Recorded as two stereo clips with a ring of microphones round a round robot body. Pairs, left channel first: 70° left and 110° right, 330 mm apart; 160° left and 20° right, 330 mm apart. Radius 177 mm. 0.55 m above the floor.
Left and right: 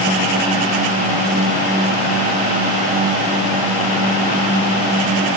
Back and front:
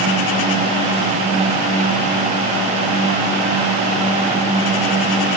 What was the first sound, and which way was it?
Only background noise.